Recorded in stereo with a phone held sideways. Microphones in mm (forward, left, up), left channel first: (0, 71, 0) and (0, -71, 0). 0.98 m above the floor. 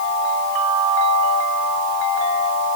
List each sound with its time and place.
Only background noise.